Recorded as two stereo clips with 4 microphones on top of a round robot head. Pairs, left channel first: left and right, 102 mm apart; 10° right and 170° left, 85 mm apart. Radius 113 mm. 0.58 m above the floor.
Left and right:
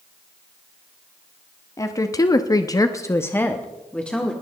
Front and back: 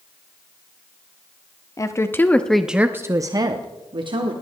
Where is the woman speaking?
35° left, 1.4 m; by 4.3 s 170° left, 2 m.